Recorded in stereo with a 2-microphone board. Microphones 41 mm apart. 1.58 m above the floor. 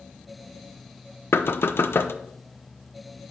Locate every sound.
1.3 s knocking: 70° left (ahead or behind), 0.6 m